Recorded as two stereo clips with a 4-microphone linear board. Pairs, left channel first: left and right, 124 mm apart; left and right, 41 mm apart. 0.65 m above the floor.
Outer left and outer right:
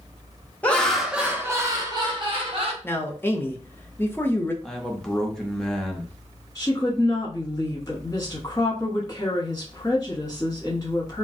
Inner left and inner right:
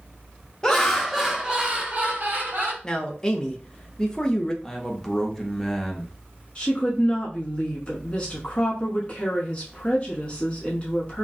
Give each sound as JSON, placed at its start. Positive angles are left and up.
{"t": 0.6, "sound": "laughter", "side_deg": 15, "distance_m": 0.7}
{"t": 2.8, "sound": "a man speaking", "side_deg": 20, "distance_m": 0.6}
{"t": 4.6, "sound": "a man speaking", "side_deg": 5, "distance_m": 0.6}
{"t": 6.5, "sound": "a woman speaking", "side_deg": 25, "distance_m": 1.2}